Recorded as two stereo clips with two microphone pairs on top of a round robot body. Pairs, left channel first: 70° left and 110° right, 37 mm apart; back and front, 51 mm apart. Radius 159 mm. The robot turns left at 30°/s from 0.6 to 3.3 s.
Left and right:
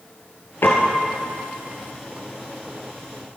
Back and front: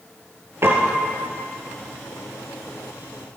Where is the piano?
45° left, 2.5 m; by 1.1 s 30° left, 2.5 m.